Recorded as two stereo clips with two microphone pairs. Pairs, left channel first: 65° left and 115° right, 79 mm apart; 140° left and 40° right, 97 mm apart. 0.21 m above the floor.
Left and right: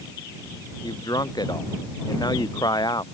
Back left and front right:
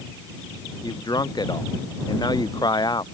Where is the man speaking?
95° left.